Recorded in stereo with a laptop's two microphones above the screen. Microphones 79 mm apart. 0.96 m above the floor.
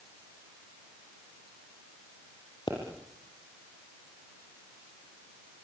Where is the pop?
65° left (ahead or behind), 8.5 m.